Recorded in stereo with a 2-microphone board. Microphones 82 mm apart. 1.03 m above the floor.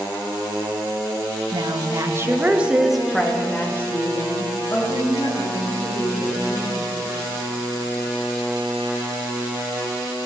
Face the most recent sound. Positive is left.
turn(degrees=45)  # may be behind; listen again after turning